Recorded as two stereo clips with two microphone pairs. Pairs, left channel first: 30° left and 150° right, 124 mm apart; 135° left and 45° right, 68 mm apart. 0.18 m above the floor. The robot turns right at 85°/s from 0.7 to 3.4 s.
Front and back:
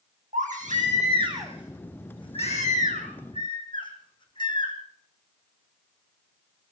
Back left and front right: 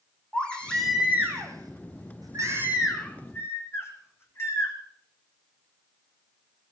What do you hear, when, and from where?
0.3 s a baby crying: 150° right, 4.5 m; by 4.8 s 80° left, 4.5 m